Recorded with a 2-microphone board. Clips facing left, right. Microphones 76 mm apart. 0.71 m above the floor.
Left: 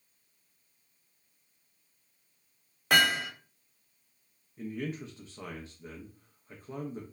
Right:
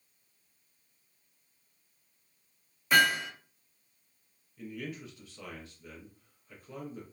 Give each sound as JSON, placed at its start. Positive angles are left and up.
{"t": 2.9, "sound": "hammering", "side_deg": 65, "distance_m": 1.0}
{"t": 4.6, "sound": "a man speaking", "side_deg": 30, "distance_m": 0.5}